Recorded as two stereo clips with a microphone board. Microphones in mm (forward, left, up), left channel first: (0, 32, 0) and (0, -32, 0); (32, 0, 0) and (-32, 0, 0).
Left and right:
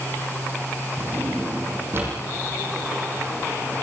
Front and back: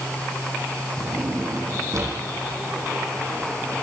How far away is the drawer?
About 9.5 m.